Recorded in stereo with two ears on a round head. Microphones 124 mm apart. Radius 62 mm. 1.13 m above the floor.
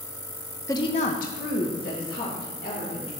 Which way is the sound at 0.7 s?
20° left (ahead or behind).